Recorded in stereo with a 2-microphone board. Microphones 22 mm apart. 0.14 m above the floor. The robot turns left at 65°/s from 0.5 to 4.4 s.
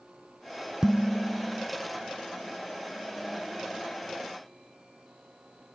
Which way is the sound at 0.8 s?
110° right.